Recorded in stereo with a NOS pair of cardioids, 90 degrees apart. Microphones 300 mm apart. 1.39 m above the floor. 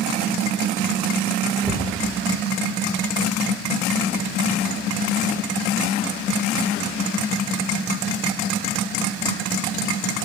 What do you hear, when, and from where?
1.6 s a cupboard door: 5° left, 2.0 m